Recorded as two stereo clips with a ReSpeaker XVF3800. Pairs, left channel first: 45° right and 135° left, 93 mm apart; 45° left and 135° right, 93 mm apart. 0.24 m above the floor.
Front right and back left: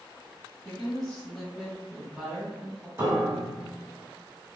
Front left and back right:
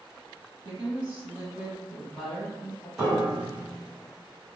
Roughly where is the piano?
Behind left.